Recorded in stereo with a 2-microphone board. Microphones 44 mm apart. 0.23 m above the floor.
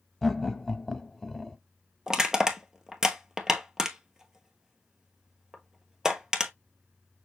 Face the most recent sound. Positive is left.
turn(degrees=-10)  # may be behind; listen again after turning